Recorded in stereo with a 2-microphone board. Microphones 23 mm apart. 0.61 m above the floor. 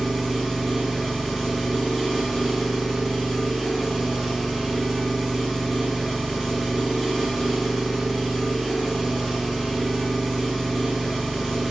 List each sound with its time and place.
0.0 s an engine running: 15° right (ahead or behind), 0.8 m